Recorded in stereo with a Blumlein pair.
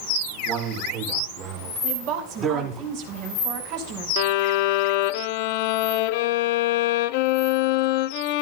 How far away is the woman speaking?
About 5.5 m.